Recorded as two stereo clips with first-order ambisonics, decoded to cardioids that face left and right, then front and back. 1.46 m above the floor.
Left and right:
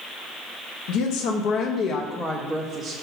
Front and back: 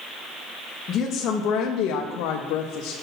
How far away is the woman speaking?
About 1.0 m.